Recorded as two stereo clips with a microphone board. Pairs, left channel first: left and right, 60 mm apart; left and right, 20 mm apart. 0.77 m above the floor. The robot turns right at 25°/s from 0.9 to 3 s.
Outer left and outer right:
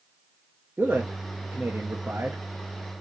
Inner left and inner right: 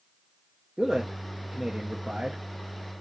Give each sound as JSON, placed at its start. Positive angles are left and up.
{"t": 0.8, "sound": "a man speaking", "azimuth_deg": -125, "distance_m": 1.2}